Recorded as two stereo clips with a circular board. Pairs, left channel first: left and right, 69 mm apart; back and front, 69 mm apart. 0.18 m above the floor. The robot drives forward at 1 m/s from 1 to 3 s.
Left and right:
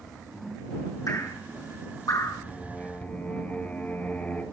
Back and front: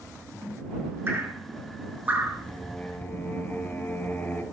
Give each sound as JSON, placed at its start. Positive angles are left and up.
{"t": 1.1, "sound": "dripping", "azimuth_deg": 55, "distance_m": 6.5}
{"t": 2.5, "sound": "singing", "azimuth_deg": 115, "distance_m": 1.6}